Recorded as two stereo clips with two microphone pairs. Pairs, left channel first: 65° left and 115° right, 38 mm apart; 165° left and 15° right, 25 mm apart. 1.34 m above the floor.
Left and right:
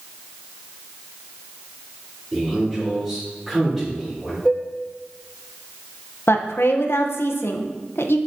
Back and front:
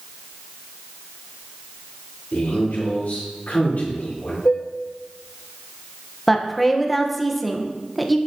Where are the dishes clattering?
150° left, 1.2 m.